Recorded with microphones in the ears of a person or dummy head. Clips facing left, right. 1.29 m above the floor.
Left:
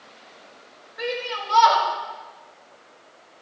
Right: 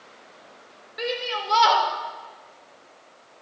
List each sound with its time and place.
1.0 s a shout: 40° right (ahead or behind), 4 m